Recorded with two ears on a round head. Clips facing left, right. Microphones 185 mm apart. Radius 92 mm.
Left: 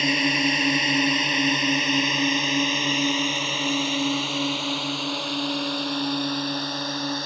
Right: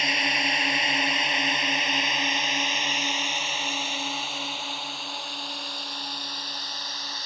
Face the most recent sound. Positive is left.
turn(degrees=45)  # may be behind; listen again after turning